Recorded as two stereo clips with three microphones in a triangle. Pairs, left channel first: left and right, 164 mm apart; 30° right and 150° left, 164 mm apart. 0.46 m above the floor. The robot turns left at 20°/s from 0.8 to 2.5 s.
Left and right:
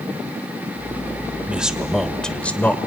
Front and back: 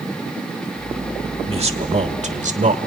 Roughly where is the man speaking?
Behind.